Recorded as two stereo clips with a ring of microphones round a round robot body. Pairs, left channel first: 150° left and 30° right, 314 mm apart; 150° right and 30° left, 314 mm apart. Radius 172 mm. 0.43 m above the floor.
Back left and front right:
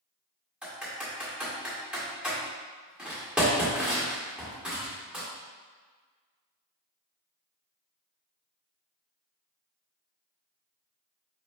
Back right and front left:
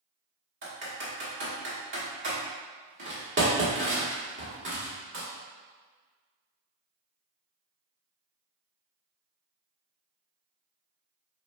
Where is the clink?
No clink in this recording.